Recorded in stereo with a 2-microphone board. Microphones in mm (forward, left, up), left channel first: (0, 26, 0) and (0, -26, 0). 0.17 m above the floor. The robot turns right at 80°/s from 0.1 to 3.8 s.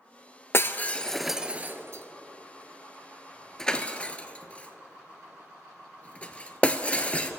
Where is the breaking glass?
50° left (ahead or behind), 0.7 m; by 7.3 s 25° left (ahead or behind), 0.7 m.